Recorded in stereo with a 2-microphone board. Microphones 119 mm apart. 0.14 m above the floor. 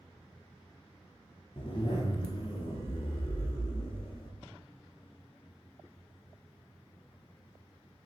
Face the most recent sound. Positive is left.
turn(degrees=50)  # may be behind; listen again after turning